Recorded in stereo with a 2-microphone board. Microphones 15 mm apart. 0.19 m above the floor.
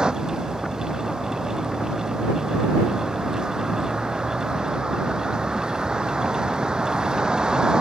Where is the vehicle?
75° right (ahead or behind).